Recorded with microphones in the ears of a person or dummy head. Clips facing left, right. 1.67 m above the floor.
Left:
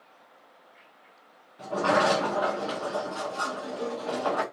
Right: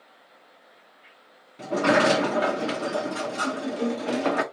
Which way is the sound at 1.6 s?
35° right (ahead or behind).